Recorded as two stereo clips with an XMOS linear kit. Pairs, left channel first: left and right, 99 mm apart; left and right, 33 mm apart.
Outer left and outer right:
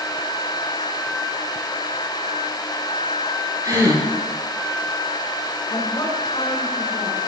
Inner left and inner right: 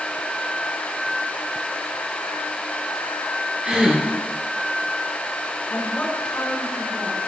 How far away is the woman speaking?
About 4 m.